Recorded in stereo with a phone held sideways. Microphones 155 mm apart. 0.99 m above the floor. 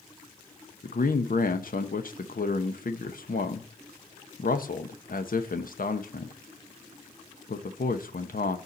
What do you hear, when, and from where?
0.8 s a man speaking: 65° left (ahead or behind), 1.0 m